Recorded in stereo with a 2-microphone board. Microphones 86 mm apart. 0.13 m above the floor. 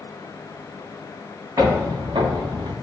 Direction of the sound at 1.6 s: 45° right (ahead or behind).